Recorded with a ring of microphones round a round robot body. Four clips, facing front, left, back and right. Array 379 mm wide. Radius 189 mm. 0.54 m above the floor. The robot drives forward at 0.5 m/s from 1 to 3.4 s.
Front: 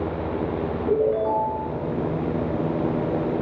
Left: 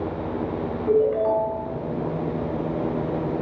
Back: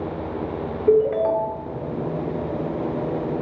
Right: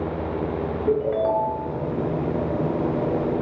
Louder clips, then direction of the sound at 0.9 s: Left 2 dB, back 4 dB; 135° right.